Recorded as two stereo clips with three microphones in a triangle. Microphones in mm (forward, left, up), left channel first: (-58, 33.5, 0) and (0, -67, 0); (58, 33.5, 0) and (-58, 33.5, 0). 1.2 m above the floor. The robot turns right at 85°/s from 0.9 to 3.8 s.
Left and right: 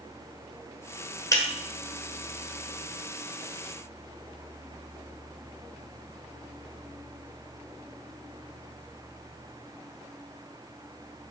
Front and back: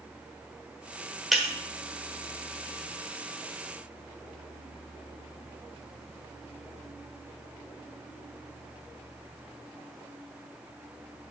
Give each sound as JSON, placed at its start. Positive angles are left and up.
{"t": 1.3, "sound": "breaking glass", "azimuth_deg": 90, "distance_m": 1.0}